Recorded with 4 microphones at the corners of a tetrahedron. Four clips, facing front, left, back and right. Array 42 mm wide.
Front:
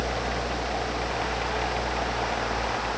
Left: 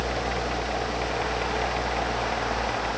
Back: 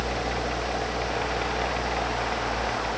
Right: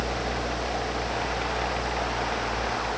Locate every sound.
Only background noise.